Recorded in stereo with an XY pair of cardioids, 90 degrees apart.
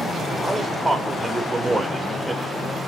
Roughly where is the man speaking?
Ahead.